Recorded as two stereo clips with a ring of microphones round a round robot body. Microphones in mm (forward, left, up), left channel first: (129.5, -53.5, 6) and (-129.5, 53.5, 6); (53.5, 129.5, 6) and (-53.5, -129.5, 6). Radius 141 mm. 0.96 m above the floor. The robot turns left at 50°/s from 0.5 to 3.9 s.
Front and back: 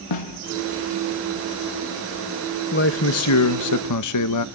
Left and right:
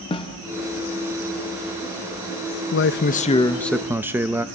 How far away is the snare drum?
About 0.9 m.